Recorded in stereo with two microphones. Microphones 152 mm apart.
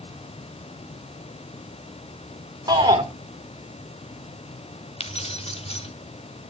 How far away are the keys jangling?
About 1.4 m.